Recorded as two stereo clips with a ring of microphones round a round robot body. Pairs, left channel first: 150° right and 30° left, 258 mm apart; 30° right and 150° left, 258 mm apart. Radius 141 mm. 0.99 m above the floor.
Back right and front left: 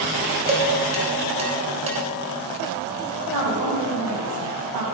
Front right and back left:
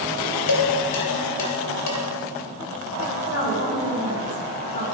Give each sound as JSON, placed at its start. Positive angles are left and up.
{"t": 0.5, "sound": "dishes clattering", "azimuth_deg": -35, "distance_m": 3.5}
{"t": 3.3, "sound": "a woman speaking", "azimuth_deg": 20, "distance_m": 7.0}